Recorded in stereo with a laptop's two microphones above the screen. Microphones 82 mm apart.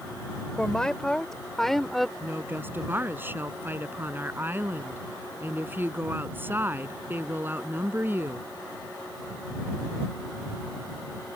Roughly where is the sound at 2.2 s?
Right.